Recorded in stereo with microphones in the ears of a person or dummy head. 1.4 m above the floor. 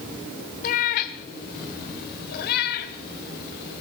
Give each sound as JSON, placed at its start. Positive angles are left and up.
{"t": 0.6, "sound": "a cat meowing", "side_deg": 40, "distance_m": 1.3}